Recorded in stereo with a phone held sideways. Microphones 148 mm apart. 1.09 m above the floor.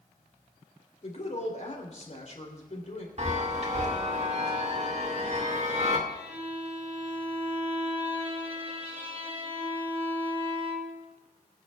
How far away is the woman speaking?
About 3 m.